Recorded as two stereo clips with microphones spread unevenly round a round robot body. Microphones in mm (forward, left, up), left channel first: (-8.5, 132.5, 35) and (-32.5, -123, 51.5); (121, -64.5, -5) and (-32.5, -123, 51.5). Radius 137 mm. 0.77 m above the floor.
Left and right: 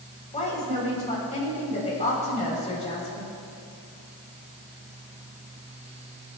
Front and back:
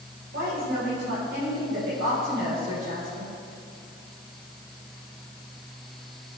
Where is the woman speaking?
150° left, 3.5 m.